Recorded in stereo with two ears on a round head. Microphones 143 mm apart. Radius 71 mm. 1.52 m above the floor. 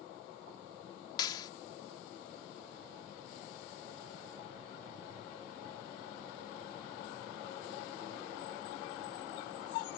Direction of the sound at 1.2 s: 25° left (ahead or behind).